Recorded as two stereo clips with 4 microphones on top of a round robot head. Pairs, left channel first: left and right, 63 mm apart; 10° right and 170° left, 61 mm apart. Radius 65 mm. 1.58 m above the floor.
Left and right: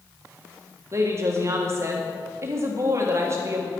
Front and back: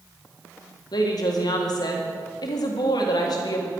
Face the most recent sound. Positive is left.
turn(degrees=-35)